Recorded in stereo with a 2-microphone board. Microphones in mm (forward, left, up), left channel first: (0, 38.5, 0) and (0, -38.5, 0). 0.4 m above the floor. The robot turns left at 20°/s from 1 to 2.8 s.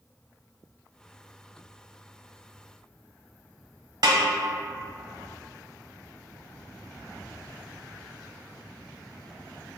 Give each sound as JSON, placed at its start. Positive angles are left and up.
{"t": 4.0, "sound": "a snare drum", "side_deg": -60, "distance_m": 0.9}